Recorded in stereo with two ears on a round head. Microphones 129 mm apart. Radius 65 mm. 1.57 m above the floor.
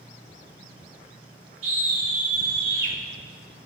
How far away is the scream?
About 3 m.